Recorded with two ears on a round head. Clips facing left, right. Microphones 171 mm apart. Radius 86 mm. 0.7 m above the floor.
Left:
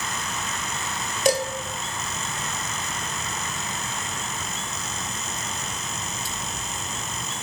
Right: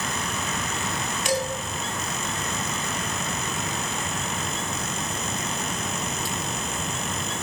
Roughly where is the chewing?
I don't hear chewing.